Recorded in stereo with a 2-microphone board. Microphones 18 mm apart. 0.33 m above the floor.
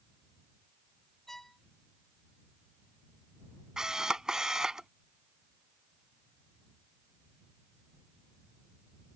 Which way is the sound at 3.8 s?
40° right (ahead or behind).